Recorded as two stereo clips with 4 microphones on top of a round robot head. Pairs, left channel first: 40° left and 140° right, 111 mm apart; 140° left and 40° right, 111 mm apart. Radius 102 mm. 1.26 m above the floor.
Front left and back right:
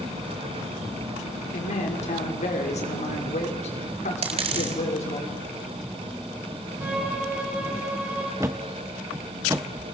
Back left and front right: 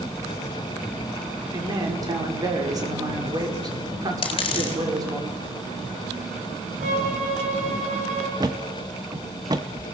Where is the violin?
65° right, 6.5 m.